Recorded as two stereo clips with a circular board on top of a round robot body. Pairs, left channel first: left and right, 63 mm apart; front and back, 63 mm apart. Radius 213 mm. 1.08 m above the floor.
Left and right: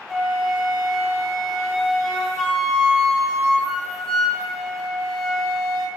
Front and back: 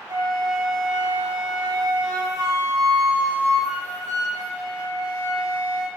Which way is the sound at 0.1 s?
170° left.